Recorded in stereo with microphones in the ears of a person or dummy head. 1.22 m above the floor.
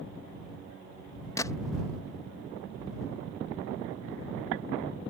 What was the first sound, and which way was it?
A gunshot, 20° left (ahead or behind).